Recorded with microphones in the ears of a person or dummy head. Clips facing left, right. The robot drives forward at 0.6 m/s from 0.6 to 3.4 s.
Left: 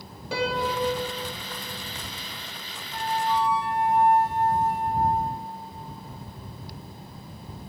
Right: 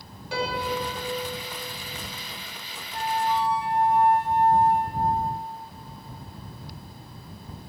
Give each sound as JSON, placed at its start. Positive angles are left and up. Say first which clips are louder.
{"t": 0.3, "sound": "a piano", "louder": "left 2 dB", "side_deg": 70, "distance_m": 2.0}
{"t": 2.9, "sound": "a flute", "louder": "even", "side_deg": 35, "distance_m": 0.9}